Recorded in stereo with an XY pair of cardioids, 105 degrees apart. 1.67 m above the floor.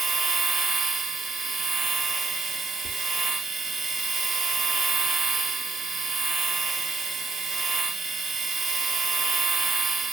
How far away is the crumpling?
I don't hear crumpling.